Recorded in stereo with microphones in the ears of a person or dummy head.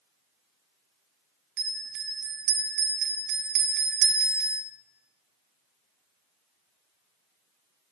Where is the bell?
60° right (ahead or behind), 0.5 m.